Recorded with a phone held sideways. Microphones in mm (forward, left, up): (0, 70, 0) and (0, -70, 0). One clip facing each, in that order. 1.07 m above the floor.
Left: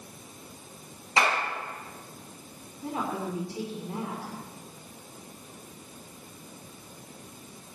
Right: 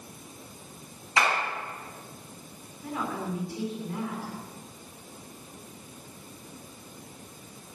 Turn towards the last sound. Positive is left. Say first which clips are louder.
# left 1 dB
turn(degrees=30)  # may be behind; listen again after turning